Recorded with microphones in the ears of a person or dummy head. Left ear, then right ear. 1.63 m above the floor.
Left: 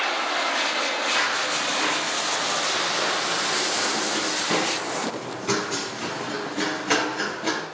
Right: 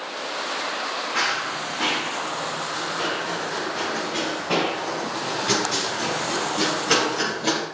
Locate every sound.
1.1 s running footsteps: 5° left (ahead or behind), 3.5 m; by 7.7 s 25° left (ahead or behind), 6.5 m